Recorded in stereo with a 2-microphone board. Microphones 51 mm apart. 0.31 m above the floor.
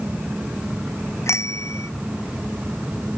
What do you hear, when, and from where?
1.3 s a bicycle bell: 75° left (ahead or behind)